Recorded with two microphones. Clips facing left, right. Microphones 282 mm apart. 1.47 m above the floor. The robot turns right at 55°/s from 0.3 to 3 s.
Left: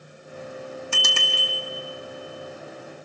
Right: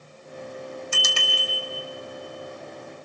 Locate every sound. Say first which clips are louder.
0.9 s a bicycle bell: left 1 dB; 105° left, 2 m; by 1.5 s 140° left, 2 m